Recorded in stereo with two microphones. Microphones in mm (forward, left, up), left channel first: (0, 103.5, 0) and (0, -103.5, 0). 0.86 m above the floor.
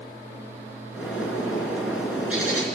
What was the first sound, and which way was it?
A bird, 5° right (ahead or behind).